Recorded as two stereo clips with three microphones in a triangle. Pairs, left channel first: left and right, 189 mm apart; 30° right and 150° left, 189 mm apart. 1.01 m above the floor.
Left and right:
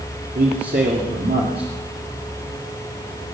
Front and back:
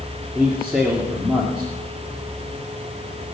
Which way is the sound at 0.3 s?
125° right.